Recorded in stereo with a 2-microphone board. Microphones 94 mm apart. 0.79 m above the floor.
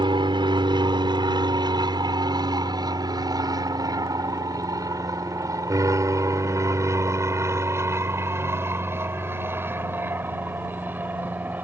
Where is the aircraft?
55° right (ahead or behind); by 11.7 s 15° right (ahead or behind).